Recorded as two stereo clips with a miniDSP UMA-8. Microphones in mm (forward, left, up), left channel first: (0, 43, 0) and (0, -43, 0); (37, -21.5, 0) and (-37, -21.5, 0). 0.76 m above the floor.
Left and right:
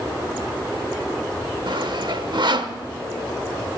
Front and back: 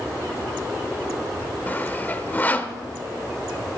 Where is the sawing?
65° right, 0.9 m.